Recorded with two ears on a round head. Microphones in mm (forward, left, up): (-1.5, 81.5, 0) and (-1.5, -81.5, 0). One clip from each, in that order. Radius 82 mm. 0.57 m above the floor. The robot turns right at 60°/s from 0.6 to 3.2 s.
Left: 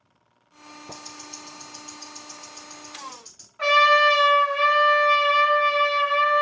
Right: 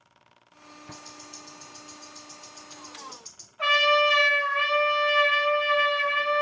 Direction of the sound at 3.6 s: 30° left (ahead or behind).